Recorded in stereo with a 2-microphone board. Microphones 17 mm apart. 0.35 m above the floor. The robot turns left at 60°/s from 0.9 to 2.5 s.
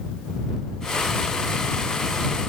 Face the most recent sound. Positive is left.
No sound to turn to.